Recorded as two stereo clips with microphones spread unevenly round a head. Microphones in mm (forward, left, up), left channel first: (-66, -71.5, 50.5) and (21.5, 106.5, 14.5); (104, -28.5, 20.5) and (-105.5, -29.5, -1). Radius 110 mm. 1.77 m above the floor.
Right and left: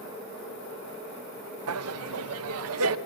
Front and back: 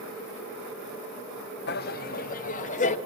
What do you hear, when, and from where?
1.7 s laughter: 50° left, 1.1 m; by 3.0 s 60° left, 1.8 m